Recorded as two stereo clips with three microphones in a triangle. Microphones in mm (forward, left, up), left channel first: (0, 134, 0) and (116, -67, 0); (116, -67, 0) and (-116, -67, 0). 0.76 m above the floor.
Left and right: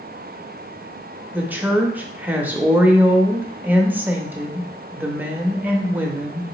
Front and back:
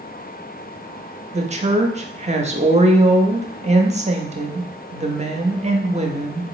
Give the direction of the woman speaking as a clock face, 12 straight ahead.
5 o'clock.